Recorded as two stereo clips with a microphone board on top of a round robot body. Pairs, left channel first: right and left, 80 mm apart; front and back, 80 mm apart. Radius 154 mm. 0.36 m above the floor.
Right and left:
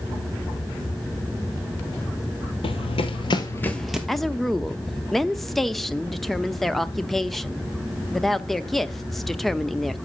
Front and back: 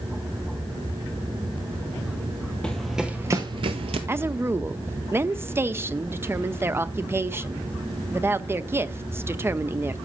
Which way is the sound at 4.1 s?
175° right.